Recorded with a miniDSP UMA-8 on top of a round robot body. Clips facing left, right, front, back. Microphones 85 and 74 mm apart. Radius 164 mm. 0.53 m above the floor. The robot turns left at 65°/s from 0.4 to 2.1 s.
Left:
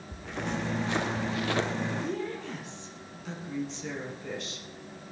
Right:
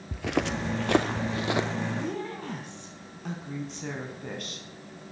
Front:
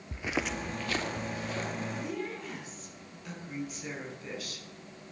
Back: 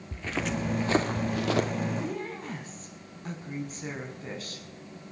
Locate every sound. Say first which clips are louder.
0.1 s footsteps: right 6 dB, back 2 dB; 75° right, 0.8 m; by 1.7 s 175° right, 1.8 m
2.0 s a woman speaking: even, back 2 dB; 120° right, 6 m; by 4.7 s 130° right, 6 m